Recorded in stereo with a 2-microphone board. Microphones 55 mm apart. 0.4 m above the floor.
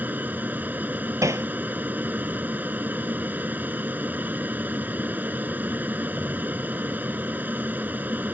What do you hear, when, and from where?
0.0 s an aircraft: 30° right (ahead or behind)
1.2 s hammering: 65° right (ahead or behind)